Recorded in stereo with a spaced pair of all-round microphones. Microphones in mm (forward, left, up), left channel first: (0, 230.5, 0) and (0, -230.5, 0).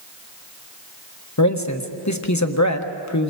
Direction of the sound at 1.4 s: 35° left (ahead or behind).